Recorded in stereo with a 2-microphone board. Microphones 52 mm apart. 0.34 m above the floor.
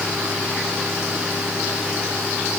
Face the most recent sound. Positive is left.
No sound to turn to.